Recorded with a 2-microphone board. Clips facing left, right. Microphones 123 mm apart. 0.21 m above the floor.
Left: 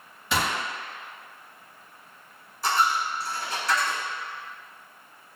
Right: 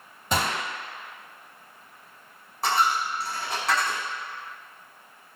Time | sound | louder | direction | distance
0.3 | a gunshot | even | 45° right (ahead or behind) | 1.0 m
2.6 | a dropped coin | even | 65° right (ahead or behind) | 1.4 m